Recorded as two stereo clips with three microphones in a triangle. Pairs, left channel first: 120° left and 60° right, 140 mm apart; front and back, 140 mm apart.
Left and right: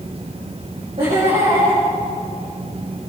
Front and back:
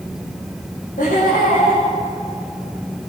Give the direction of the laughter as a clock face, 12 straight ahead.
1 o'clock.